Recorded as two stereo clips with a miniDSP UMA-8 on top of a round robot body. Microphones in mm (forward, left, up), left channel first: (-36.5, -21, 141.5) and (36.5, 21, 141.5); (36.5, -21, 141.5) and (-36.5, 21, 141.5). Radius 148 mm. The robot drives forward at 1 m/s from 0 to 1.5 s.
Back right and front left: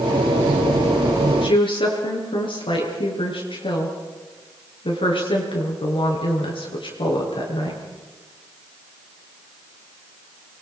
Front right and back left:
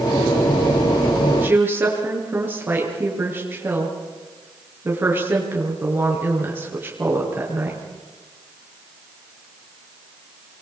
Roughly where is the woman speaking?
Behind right.